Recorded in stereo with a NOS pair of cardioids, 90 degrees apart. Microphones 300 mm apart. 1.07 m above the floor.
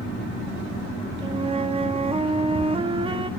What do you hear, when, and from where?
1.2 s a flute: 20° right, 1.1 m